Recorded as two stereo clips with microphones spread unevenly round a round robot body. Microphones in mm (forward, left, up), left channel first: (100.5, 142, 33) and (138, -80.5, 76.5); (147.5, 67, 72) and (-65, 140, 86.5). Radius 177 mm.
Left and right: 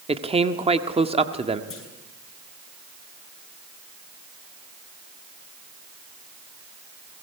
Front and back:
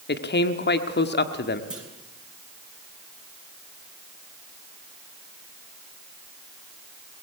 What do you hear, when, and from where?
0.1 s a man speaking: 10° right, 1.4 m
1.7 s a clunk: 75° left, 8.5 m